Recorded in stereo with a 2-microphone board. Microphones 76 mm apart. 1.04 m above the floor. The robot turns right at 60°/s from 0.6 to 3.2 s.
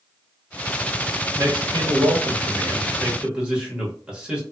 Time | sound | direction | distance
1.4 | a man speaking | 125° right | 1.2 m